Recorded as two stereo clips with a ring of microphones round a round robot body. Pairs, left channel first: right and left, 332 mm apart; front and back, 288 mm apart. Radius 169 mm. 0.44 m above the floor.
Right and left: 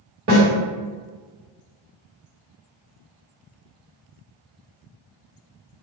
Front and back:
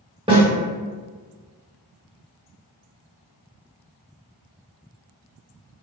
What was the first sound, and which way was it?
A snare drum, 115° left.